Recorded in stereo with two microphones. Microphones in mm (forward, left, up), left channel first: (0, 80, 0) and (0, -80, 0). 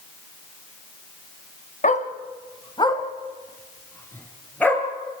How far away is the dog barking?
About 1.8 m.